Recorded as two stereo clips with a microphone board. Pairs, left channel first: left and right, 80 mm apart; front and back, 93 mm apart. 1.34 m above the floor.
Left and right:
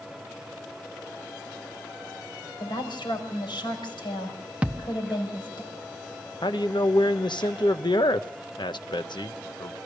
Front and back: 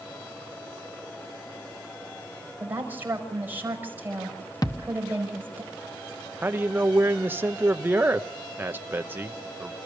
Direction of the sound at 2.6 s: 110° left.